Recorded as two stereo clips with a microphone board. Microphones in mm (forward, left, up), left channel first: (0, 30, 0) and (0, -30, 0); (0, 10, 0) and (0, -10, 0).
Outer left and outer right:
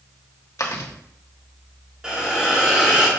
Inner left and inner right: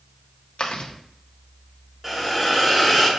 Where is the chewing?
70° left (ahead or behind), 1.2 m.